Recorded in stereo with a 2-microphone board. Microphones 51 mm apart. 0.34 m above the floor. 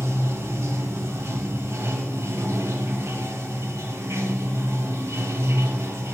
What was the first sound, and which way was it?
Running water, 65° right (ahead or behind).